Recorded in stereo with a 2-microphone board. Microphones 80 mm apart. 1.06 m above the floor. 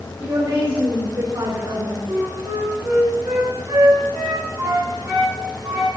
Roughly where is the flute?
Right.